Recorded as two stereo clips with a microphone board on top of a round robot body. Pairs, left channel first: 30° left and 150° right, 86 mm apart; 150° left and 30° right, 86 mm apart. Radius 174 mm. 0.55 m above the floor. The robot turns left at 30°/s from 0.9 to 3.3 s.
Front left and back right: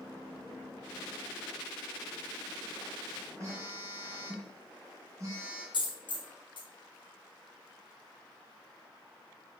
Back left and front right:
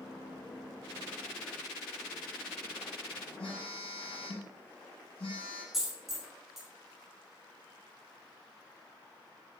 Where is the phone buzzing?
155° left, 1.0 m.